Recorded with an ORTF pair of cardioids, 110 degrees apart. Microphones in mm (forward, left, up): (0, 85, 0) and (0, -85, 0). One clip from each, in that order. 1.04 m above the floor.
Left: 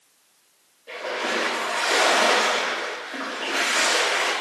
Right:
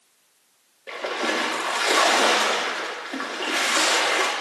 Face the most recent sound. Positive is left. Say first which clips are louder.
# right 1 dB
turn(degrees=-55)